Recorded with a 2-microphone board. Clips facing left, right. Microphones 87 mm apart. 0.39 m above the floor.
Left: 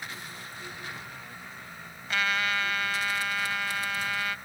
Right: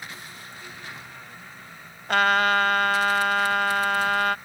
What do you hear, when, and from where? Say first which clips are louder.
2.1 s a trumpet: right 9 dB; 60° right (ahead or behind)